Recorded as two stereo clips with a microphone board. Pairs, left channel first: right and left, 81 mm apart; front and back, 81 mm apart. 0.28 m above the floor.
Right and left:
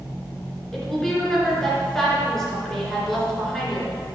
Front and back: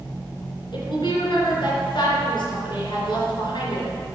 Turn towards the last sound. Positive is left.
turn(degrees=-5)